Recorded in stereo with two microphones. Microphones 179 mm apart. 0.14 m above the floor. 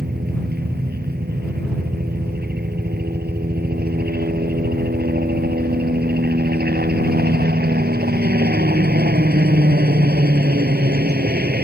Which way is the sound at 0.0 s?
60° right (ahead or behind).